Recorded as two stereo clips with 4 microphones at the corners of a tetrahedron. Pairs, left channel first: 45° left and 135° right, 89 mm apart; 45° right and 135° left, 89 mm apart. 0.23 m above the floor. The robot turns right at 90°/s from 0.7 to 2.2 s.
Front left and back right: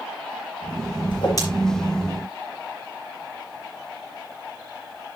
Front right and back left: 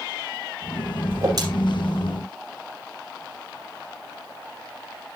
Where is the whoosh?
65° left, 6 m; by 1.4 s 95° left, 6 m.